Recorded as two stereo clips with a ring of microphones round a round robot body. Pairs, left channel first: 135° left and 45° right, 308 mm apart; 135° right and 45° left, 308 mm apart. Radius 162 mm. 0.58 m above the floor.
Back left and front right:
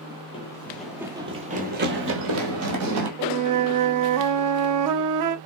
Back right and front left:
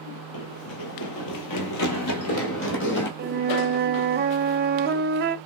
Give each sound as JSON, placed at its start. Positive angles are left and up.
{"t": 0.3, "sound": "running footsteps", "azimuth_deg": -150, "distance_m": 1.0}
{"t": 3.2, "sound": "a flute", "azimuth_deg": -15, "distance_m": 0.5}